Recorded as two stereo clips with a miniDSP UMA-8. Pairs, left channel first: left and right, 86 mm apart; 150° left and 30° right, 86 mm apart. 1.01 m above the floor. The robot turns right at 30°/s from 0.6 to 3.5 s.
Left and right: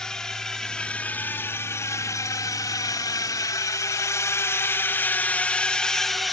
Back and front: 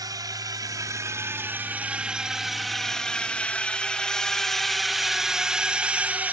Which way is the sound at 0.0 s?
10° left.